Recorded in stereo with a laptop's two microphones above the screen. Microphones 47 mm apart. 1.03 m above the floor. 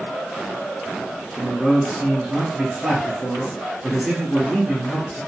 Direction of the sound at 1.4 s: 5° right (ahead or behind).